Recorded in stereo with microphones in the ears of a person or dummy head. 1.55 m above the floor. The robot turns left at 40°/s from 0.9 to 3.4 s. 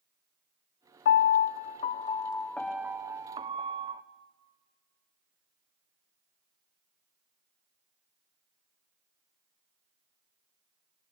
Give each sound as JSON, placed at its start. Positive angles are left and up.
{"t": 1.1, "sound": "a piano", "azimuth_deg": 70, "distance_m": 0.6}